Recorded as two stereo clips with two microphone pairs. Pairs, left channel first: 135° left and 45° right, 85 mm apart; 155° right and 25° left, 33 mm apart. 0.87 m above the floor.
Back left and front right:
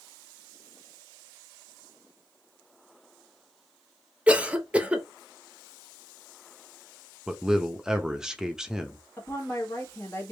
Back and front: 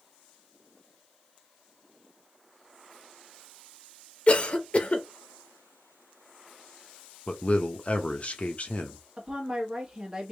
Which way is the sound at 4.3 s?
115° right.